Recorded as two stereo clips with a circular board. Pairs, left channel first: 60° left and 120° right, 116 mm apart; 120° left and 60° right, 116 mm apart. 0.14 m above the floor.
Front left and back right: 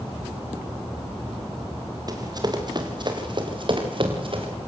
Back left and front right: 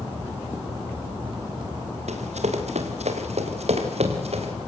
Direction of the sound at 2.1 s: 65° right.